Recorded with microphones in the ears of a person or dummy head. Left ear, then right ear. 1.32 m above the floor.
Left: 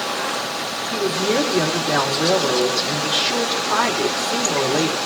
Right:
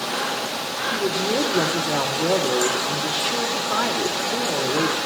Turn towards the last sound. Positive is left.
turn(degrees=30)  # may be behind; listen again after turning